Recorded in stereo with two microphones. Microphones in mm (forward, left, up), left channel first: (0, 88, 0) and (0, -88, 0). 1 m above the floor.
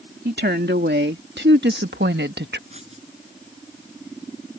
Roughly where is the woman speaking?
Right.